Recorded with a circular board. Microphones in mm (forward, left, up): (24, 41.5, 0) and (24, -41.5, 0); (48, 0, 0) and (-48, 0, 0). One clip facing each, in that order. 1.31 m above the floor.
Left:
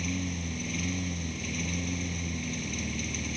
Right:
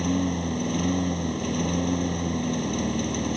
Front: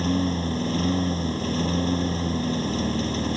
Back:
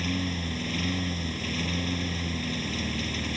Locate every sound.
0.0 s a lawn mower: 55° right